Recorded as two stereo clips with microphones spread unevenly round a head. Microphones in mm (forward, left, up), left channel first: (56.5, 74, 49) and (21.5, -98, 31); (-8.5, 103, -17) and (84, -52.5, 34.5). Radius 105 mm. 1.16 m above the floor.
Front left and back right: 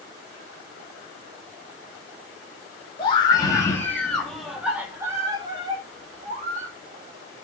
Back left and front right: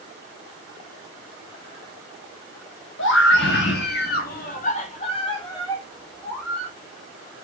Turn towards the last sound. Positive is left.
turn(degrees=-150)